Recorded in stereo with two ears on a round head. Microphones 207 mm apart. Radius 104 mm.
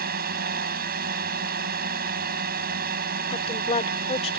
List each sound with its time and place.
0.0 s a drone: 45° right (ahead or behind)
3.3 s a woman speaking: 30° left (ahead or behind)